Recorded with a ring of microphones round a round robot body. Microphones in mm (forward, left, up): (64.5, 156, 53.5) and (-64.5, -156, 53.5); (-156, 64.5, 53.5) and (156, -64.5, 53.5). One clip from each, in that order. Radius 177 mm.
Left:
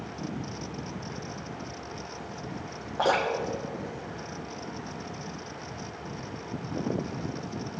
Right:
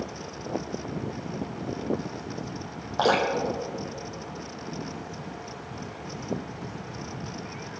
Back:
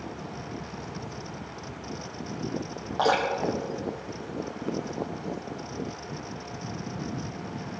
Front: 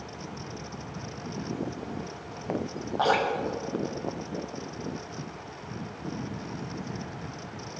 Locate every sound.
3.0 s dripping: 130° right, 5 m